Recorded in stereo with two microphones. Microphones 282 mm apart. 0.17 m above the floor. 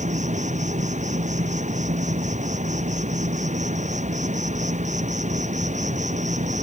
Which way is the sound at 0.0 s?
25° right (ahead or behind).